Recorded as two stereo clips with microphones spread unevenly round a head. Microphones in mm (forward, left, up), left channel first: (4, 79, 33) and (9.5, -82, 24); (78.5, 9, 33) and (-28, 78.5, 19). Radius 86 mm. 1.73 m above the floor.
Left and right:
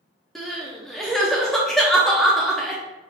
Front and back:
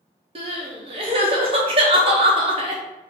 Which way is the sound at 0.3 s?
175° left.